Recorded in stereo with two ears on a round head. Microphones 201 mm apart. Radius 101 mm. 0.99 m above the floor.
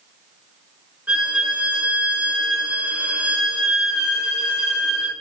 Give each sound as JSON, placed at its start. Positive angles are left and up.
{"t": 1.1, "sound": "a violin", "side_deg": -5, "distance_m": 0.8}